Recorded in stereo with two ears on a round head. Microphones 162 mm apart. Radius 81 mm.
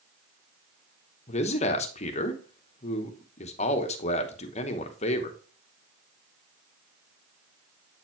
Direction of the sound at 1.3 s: 35° left (ahead or behind).